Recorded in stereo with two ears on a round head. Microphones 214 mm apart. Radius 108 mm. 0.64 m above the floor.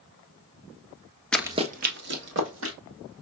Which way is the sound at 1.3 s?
5° left (ahead or behind).